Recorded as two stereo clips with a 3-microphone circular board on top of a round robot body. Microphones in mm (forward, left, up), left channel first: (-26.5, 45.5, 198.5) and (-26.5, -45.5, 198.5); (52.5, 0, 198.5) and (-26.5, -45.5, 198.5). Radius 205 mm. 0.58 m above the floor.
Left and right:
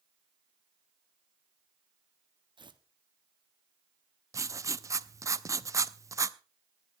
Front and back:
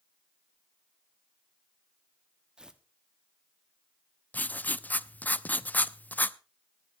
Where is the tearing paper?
70° right, 1.7 m.